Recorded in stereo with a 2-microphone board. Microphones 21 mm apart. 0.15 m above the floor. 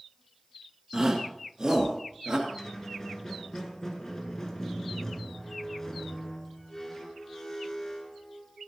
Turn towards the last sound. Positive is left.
turn(degrees=30)  # may be behind; listen again after turning